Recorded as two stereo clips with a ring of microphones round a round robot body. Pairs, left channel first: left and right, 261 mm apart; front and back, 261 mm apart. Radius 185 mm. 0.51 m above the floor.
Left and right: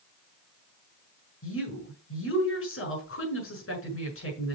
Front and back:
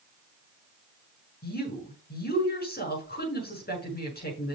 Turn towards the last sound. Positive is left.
turn(degrees=55)